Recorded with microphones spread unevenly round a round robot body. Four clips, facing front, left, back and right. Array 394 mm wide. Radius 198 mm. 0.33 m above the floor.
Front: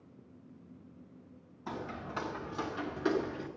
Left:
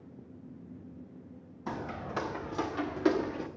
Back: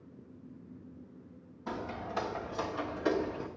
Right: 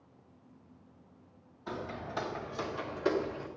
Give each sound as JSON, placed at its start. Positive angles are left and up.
{"t": 1.7, "sound": "footsteps", "azimuth_deg": 80, "distance_m": 3.0}